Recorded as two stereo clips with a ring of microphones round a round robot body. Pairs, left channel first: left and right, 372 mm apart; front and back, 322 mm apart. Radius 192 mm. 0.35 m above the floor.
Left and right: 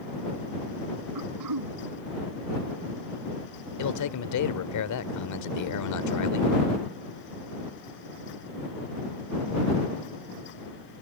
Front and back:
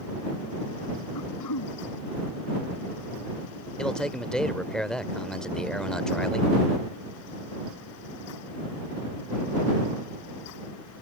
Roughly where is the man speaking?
Left.